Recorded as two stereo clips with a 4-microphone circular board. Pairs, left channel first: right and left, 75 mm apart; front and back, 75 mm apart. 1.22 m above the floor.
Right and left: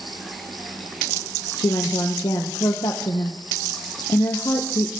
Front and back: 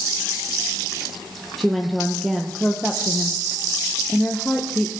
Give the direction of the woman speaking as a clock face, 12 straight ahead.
3 o'clock.